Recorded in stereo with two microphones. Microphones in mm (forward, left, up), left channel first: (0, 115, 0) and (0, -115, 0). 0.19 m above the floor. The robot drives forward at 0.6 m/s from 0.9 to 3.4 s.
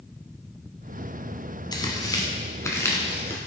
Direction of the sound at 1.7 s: 20° left (ahead or behind).